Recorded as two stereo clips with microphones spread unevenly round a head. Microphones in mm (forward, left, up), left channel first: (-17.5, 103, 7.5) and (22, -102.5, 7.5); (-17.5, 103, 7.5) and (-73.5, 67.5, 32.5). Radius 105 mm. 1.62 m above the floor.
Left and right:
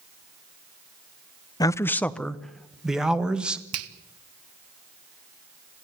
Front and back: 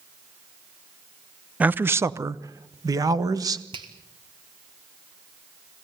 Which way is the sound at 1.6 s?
170° left.